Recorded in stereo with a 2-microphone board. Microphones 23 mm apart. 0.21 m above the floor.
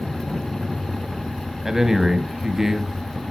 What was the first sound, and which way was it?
A man speaking, 15° right (ahead or behind).